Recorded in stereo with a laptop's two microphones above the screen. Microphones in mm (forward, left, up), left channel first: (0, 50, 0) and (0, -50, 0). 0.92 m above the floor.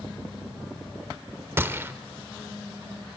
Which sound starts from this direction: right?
A gunshot, at 1.6 s.